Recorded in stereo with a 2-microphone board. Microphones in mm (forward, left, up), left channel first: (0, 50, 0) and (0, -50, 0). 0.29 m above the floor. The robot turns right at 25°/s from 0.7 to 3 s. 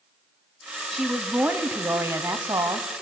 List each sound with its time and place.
0.9 s a woman speaking: straight behind, 2 m; by 2.9 s 130° right, 2 m